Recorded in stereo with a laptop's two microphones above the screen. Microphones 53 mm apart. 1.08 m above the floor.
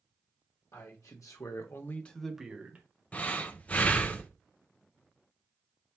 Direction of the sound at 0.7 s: 80° left.